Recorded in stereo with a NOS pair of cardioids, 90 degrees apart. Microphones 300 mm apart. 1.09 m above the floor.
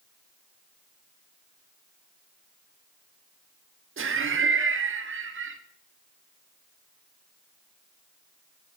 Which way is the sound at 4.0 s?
40° right.